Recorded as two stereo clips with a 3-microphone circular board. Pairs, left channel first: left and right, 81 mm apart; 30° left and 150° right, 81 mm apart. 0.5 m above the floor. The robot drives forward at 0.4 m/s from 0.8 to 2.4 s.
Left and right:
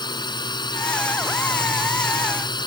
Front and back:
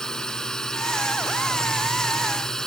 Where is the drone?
115° left.